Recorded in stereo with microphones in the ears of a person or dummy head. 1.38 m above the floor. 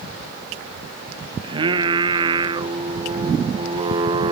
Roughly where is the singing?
Right.